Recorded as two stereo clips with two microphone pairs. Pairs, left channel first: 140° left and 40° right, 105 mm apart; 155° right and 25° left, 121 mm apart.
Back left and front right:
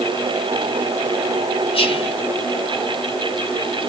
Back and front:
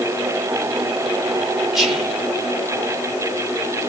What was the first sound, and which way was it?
Whispering, 110° left.